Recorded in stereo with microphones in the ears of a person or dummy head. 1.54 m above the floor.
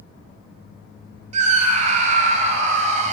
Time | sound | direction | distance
1.3 | a scream | 40° right (ahead or behind) | 1.1 m